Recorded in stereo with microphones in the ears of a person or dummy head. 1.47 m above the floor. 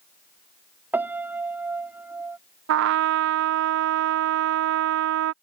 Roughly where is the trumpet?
Right.